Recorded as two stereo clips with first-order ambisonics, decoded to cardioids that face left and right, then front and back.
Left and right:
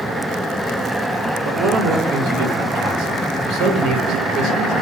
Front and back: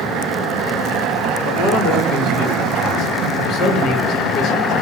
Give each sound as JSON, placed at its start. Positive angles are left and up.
{"t": 1.4, "sound": "a man speaking", "azimuth_deg": -55, "distance_m": 1.2}